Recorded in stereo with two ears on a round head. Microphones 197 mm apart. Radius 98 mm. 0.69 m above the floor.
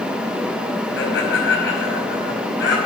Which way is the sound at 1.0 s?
55° left (ahead or behind).